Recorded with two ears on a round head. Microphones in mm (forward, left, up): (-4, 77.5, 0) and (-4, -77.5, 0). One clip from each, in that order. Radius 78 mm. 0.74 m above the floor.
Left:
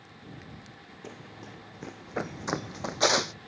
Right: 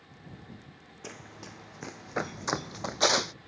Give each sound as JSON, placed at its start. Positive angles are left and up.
{"t": 1.0, "sound": "running footsteps", "side_deg": -55}